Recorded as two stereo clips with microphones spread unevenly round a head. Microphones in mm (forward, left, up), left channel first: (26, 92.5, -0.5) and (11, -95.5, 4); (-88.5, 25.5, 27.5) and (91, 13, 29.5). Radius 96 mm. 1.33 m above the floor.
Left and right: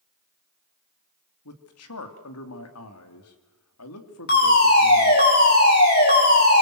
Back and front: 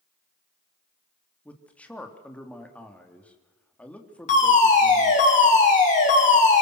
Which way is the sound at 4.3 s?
130° left.